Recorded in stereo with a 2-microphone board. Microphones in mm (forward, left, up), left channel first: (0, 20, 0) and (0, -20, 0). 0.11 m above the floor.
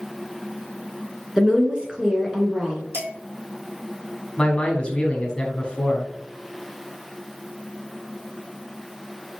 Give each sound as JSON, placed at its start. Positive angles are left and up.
{"t": 1.4, "sound": "a woman speaking", "side_deg": -20, "distance_m": 1.1}
{"t": 2.9, "sound": "dishes clattering", "side_deg": -70, "distance_m": 2.5}
{"t": 4.4, "sound": "a man speaking", "side_deg": 25, "distance_m": 1.3}